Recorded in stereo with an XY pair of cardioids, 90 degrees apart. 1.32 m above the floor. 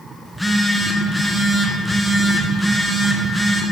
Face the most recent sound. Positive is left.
turn(degrees=10)